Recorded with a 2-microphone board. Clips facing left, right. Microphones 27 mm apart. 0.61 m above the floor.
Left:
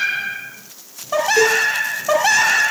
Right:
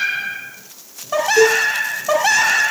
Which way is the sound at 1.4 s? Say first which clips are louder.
Right 3 dB; 15° right (ahead or behind).